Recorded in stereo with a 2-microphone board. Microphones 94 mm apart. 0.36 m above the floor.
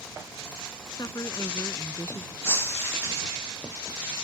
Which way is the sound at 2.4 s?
25° left (ahead or behind).